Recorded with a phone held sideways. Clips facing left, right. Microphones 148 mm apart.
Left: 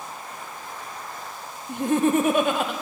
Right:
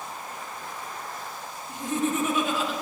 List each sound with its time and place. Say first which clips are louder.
1.7 s laughter: left 7 dB; 60° left (ahead or behind), 1.5 m